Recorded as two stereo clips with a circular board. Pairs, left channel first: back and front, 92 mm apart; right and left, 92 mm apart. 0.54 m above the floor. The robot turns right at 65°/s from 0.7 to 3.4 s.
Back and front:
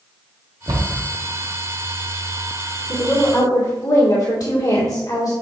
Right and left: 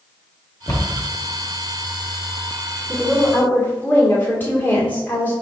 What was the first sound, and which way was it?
A cupboard door, 40° right.